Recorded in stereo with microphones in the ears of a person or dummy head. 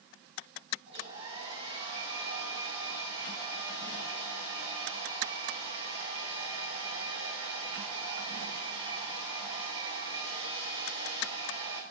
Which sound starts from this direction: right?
A hair dryer, at 0.9 s.